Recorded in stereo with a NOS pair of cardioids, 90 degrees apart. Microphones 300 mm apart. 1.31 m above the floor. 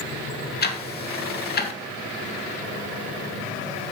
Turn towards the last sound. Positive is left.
turn(degrees=30)